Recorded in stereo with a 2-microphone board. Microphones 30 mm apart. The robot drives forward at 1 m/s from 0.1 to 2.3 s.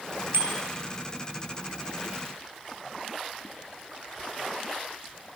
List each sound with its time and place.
0.3 s a bicycle bell: 75° right (ahead or behind), 2.5 m; by 0.5 s 70° right (ahead or behind), 2.5 m